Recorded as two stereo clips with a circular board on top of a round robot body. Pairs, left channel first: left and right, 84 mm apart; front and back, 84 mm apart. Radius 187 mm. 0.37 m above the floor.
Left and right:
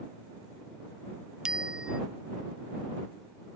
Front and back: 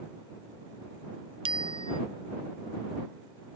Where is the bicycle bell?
175° right.